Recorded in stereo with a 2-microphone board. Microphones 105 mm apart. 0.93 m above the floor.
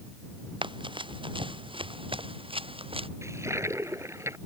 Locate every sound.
0.6 s running footsteps: 50° right (ahead or behind); by 3.1 s 60° right (ahead or behind)
3.2 s a toilet flushing: 30° right (ahead or behind)